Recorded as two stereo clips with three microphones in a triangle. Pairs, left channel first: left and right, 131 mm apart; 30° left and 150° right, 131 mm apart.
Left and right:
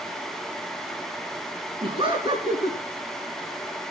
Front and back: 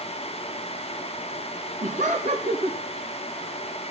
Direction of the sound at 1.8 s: 140° right.